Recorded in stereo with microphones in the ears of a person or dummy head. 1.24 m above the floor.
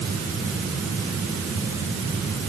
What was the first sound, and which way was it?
Only background noise.